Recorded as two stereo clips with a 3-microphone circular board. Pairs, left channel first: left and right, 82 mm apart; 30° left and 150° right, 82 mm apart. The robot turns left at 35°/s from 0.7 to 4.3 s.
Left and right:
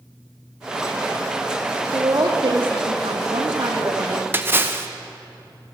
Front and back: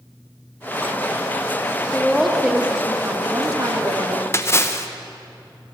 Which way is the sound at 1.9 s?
50° right.